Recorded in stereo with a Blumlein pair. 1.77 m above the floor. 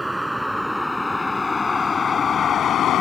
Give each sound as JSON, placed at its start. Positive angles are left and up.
{"t": 0.0, "sound": "a vehicle", "azimuth_deg": -5}